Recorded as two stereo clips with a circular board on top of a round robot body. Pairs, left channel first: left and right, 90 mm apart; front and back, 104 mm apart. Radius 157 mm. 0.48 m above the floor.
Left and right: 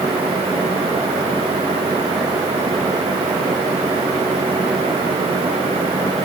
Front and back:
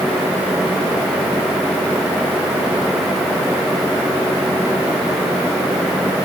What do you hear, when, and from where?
Only background noise.